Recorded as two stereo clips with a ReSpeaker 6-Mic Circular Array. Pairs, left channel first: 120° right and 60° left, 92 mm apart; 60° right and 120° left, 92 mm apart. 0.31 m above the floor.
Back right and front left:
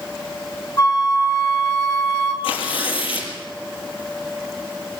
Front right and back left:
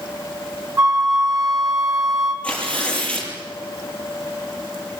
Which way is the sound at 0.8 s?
Straight behind.